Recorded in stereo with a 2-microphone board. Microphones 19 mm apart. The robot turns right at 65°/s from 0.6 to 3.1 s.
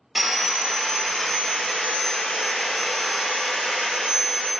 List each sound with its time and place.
0.1 s sawing: 10° right, 0.6 m; by 4.5 s 150° left, 0.6 m